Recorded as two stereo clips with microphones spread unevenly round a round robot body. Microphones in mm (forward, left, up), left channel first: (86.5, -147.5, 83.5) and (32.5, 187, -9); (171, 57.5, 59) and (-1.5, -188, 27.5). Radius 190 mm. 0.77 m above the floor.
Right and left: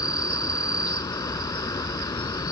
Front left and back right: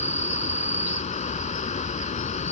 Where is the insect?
10° right.